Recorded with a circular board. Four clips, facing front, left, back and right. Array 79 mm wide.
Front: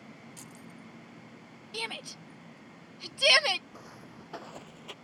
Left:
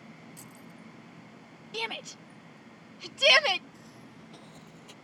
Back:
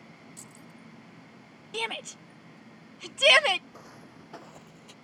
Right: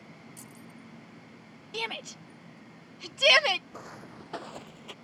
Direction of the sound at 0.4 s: 10° left.